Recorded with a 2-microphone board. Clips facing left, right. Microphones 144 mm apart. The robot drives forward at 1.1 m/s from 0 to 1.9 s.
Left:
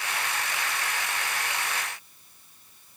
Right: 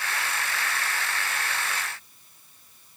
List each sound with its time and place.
Only background noise.